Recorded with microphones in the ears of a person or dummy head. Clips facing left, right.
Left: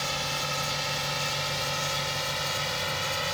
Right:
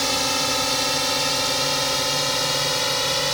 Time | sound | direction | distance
0.0 | a drone | 70° right (ahead or behind) | ?